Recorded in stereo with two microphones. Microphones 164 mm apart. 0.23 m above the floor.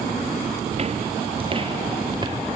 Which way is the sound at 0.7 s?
40° right (ahead or behind).